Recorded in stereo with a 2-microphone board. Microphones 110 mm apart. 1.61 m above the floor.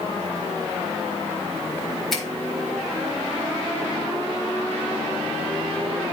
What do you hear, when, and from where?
2.1 s a finger snap: centre (ahead or behind), 2.5 m